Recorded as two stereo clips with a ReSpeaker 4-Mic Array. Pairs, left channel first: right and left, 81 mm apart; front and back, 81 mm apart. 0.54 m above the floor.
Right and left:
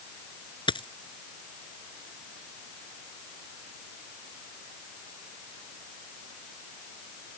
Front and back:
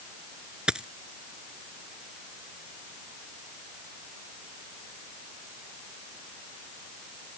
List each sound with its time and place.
0.7 s a dropped coin: 100° right